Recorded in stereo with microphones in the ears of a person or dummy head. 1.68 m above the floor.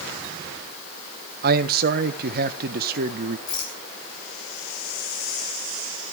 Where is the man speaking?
60° right (ahead or behind), 1.4 m.